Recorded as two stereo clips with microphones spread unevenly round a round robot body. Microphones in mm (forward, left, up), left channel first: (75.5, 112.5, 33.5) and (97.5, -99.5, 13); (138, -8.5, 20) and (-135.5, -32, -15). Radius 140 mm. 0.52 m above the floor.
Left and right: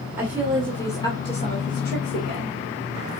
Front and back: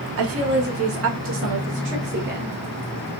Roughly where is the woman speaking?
Behind.